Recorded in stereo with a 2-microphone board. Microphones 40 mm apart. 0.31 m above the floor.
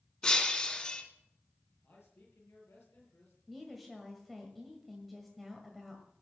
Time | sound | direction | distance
0.2 | breaking glass | 25° left (ahead or behind) | 1.9 m
1.8 | a man speaking | 80° left | 6 m
3.5 | a woman speaking | centre (ahead or behind) | 1.8 m